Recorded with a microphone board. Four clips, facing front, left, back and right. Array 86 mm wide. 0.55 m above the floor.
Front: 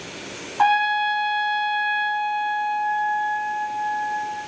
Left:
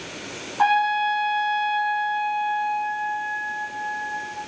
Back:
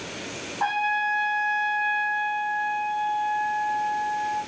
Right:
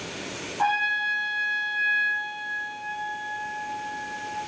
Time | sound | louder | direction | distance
0.6 | a trumpet | left 6 dB, front 6 dB | 25° left | 3 m